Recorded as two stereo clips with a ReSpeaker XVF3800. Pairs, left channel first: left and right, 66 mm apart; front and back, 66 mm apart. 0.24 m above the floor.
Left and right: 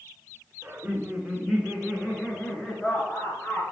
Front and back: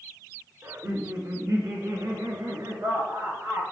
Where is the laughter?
155° right, 2.5 m; by 3.6 s 145° left, 4.5 m.